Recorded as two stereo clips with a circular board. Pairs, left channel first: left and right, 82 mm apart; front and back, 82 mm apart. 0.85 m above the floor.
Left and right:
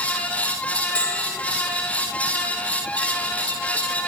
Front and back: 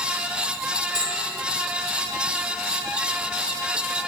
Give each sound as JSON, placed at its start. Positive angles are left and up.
{"t": 0.9, "sound": "a bell", "azimuth_deg": 165, "distance_m": 4.0}